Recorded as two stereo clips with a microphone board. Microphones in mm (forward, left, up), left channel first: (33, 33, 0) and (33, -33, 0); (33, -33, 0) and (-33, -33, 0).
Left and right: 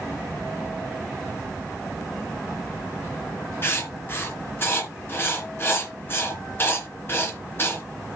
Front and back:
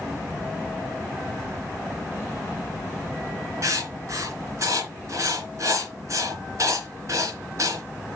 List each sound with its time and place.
3.6 s writing: 145° left, 2.5 m